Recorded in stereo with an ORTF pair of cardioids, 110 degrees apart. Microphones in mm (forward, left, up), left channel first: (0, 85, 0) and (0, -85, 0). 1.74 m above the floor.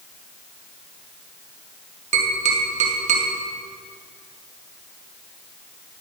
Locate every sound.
2.1 s tapping: 40° right, 2 m